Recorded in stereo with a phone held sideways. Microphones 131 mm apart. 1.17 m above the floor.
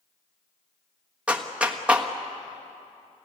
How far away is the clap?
About 1.4 m.